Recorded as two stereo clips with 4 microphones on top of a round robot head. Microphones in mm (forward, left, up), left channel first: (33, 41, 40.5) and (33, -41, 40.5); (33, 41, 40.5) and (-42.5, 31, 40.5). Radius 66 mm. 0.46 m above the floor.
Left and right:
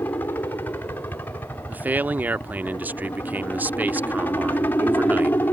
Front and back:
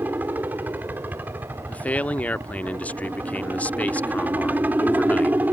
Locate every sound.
0.0 s a helicopter: 140° left
1.7 s a man speaking: 40° right